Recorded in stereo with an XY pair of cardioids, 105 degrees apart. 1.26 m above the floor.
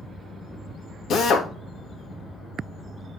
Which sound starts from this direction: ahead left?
A drill, at 1.1 s.